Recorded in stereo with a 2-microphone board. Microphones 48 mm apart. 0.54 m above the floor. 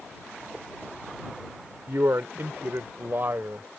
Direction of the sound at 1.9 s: 60° right (ahead or behind).